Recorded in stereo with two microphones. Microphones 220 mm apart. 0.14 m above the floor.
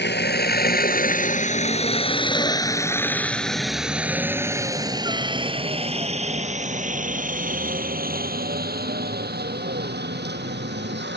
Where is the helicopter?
50° left (ahead or behind); by 11.2 s 50° right (ahead or behind).